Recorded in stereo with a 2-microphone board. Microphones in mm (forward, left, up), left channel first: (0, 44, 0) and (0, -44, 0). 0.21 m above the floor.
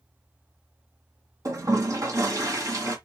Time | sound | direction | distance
1.4 | a toilet flushing | 40° right (ahead or behind) | 1.7 m